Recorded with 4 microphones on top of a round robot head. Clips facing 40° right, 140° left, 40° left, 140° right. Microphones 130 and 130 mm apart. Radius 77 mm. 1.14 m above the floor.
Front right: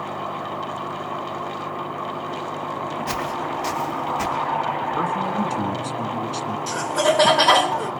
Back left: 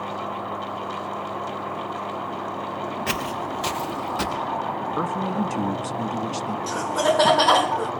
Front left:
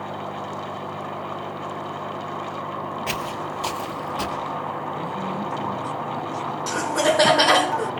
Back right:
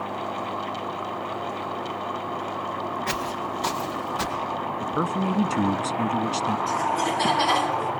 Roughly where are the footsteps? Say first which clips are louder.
Front right 2 dB, even; behind left.